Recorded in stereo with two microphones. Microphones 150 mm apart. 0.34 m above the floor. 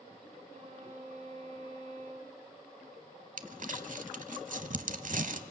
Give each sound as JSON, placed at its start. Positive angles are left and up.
{"t": 0.5, "sound": "a violin", "side_deg": -55, "distance_m": 3.0}
{"t": 3.4, "sound": "crumpling", "side_deg": -60, "distance_m": 0.9}